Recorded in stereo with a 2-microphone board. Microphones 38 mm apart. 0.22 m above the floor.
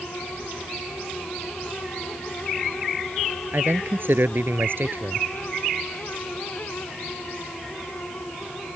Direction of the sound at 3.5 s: 60° right (ahead or behind).